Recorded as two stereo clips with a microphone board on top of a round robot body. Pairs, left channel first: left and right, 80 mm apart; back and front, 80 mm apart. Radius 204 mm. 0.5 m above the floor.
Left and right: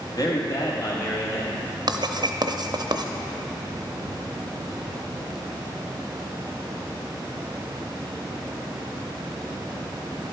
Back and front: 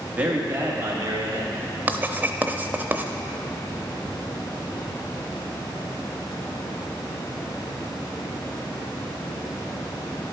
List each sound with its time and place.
0.1 s a man speaking: 70° left, 1.9 m; by 1.5 s 45° left, 3 m
1.9 s writing: 65° right, 0.8 m